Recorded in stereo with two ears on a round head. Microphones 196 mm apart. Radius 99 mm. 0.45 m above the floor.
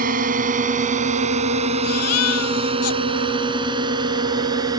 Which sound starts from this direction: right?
A drone, at 0.0 s.